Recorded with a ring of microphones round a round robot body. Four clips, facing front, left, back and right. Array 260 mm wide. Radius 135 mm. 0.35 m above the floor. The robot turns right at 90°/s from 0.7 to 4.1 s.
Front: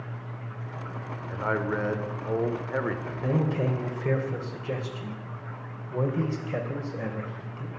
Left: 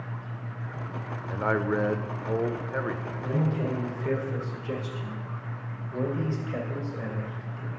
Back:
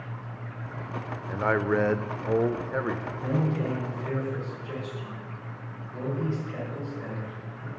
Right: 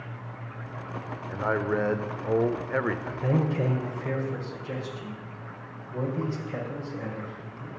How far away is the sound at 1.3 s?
About 0.8 m.